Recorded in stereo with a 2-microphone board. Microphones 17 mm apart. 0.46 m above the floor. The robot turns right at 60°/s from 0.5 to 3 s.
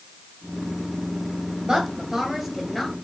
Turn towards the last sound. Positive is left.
turn(degrees=25)